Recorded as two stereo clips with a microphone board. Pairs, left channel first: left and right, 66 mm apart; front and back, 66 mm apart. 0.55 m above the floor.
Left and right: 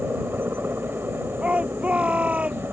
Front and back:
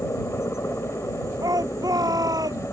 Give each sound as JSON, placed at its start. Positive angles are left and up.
{"t": 0.0, "sound": "a helicopter", "azimuth_deg": -40}
{"t": 1.4, "sound": "a shout", "azimuth_deg": -160}